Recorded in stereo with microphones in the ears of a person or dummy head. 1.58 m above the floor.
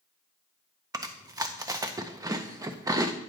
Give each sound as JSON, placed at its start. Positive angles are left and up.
{"t": 0.9, "sound": "chewing", "side_deg": -15, "distance_m": 0.5}